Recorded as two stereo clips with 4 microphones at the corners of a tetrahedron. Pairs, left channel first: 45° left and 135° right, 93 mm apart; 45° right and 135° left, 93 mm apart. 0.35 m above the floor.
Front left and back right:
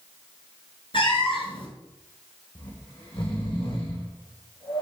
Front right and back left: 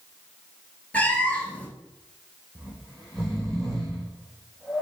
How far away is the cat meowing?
About 2.5 m.